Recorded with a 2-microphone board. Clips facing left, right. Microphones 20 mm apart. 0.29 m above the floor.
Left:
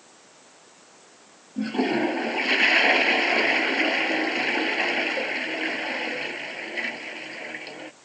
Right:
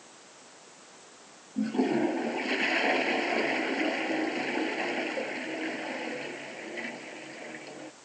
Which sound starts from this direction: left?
A toilet flushing, at 1.6 s.